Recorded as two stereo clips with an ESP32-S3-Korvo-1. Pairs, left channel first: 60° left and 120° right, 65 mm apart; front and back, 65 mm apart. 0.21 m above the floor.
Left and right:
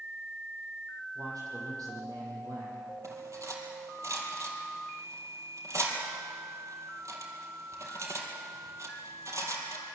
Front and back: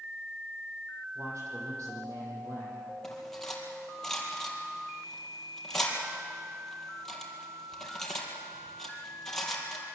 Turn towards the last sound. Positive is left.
turn(degrees=-85)